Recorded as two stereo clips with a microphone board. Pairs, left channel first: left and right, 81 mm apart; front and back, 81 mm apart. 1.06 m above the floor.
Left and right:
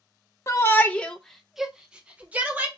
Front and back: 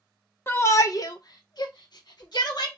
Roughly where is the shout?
Ahead left.